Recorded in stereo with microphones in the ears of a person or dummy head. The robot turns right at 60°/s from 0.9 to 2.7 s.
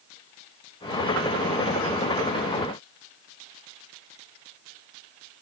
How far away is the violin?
I don't hear a violin.